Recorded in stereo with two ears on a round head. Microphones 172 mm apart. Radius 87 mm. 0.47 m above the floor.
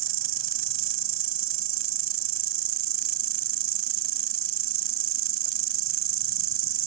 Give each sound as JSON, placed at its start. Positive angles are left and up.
{"t": 0.0, "sound": "an insect", "side_deg": -75}